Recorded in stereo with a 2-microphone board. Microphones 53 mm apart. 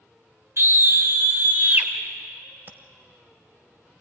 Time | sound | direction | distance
0.6 | a scream | 45° right (ahead or behind) | 2 m
2.7 | tapping | 35° right (ahead or behind) | 1.1 m